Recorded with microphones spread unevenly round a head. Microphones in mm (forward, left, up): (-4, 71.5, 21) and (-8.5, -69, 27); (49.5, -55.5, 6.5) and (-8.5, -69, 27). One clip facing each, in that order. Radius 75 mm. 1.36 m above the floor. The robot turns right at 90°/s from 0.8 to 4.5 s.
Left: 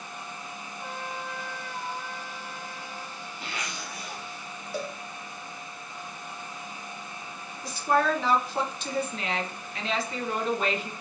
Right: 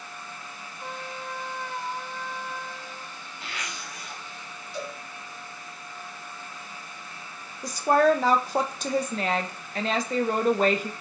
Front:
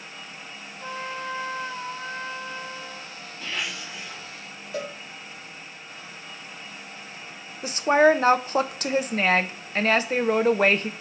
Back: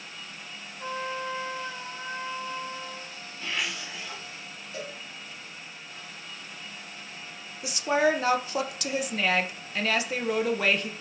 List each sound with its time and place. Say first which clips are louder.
0.8 s a trumpet: even, even; 115° right, 3 m; by 3.2 s 105° left, 3 m
3.4 s a zipper: left 1 dB, even; 75° left, 1.5 m; by 4.2 s 145° left, 1.5 m
4.7 s a cowbell: left 2 dB, front 6 dB; 45° left, 0.8 m
7.6 s a woman speaking: right 5 dB, front 6 dB; 40° right, 0.6 m